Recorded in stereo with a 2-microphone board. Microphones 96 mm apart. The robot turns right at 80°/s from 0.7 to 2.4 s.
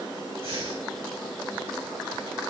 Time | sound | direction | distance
0.4 | breathing | 80° right | 3 m